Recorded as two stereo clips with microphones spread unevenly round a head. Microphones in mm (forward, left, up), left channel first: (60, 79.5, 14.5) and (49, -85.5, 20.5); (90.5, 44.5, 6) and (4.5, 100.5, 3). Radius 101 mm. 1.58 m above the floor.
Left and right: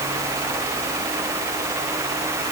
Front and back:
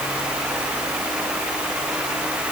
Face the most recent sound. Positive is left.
No sound to turn to.